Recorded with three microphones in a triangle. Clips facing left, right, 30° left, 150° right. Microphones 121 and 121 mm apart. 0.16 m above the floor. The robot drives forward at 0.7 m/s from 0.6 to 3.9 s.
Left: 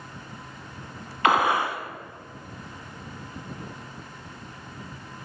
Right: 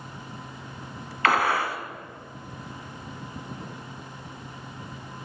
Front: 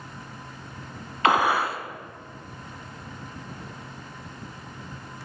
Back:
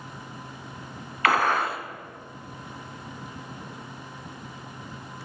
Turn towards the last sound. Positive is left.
turn(degrees=170)